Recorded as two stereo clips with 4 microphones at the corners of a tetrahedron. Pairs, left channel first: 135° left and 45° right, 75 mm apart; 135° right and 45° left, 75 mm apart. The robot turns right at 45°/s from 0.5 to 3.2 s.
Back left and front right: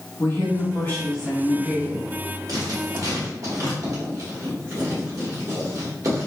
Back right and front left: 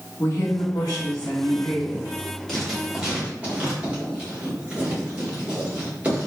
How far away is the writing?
About 1.5 m.